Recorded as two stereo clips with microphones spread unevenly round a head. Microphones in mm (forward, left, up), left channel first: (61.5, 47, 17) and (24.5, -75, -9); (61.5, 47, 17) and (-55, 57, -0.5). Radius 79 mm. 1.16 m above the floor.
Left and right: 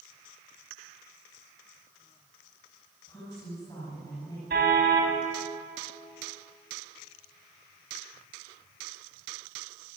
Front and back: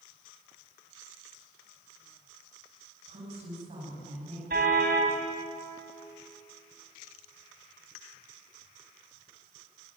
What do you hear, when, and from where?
3.1 s a woman speaking: 140° left, 9 m
4.5 s a car horn: 150° right, 4.5 m